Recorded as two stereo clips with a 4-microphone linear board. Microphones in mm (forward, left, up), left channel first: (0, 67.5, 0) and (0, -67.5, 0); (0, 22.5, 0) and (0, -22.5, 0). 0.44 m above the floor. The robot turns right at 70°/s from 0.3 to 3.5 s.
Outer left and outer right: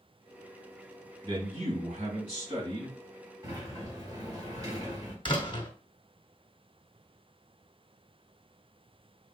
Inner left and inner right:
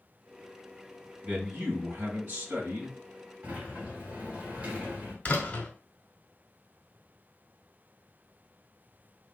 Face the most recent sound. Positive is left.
turn(degrees=35)  # may be behind; listen again after turning